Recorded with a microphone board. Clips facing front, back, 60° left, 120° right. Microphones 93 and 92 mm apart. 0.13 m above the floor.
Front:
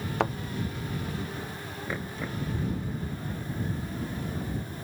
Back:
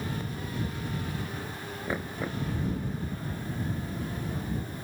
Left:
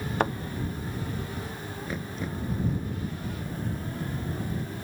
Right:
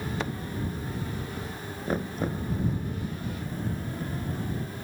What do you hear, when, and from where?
0.2 s a thud: 20° left
1.9 s knocking: 110° right